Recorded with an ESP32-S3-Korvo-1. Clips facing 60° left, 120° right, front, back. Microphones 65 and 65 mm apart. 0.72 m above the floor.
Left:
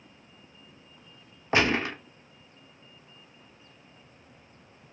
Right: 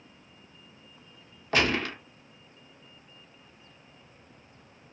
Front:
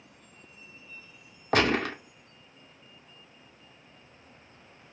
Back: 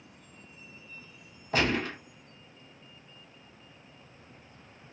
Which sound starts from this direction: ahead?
A gunshot, at 1.5 s.